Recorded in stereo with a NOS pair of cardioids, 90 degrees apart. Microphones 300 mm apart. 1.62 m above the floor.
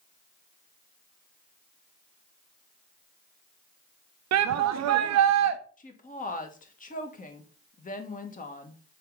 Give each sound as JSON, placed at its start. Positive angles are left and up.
{"t": 4.3, "sound": "a shout", "azimuth_deg": -65, "distance_m": 0.7}
{"t": 5.8, "sound": "a woman speaking", "azimuth_deg": 25, "distance_m": 1.5}